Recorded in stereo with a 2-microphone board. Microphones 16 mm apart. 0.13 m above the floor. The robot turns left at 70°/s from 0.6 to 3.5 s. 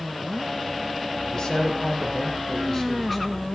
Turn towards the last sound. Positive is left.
turn(degrees=-10)